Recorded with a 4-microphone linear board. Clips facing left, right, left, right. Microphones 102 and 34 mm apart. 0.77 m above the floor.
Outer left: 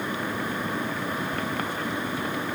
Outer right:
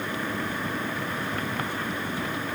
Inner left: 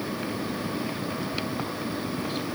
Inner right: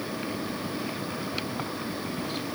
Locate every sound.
Only background noise.